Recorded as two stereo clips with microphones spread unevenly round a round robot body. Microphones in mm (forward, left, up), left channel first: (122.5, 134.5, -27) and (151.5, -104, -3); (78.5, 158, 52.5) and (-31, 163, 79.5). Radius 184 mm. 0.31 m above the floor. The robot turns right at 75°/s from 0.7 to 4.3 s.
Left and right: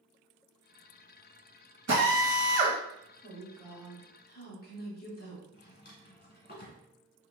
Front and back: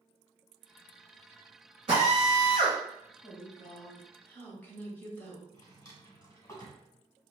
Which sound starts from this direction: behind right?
A drill, at 1.9 s.